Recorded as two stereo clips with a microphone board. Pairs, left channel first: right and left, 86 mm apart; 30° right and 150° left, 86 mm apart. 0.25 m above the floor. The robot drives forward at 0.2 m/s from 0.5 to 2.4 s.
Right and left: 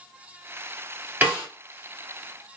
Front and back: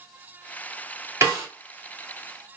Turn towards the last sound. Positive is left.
turn(degrees=150)